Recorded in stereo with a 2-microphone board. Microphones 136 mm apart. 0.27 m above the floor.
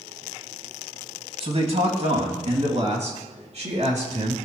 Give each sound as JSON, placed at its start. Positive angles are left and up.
{"t": 1.4, "sound": "a man speaking", "side_deg": -50, "distance_m": 2.0}